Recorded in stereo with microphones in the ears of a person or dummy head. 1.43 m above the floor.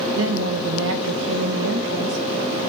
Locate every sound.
0.1 s a woman speaking: 75° right (ahead or behind), 1.0 m